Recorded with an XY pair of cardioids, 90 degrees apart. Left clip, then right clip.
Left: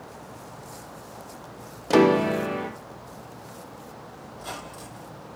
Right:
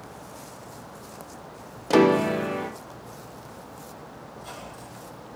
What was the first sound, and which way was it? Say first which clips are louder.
A piano: even; straight ahead.